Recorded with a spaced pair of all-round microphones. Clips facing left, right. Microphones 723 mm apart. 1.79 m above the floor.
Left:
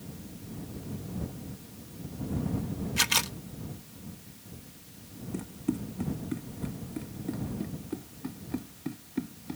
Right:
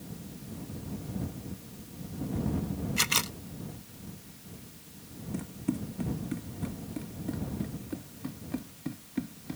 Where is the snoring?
No snoring in this recording.